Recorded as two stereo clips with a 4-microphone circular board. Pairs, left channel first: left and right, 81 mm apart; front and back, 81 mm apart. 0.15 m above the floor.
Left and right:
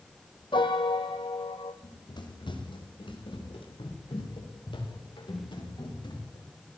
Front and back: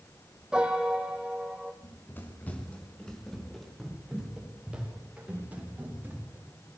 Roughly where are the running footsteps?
Ahead left.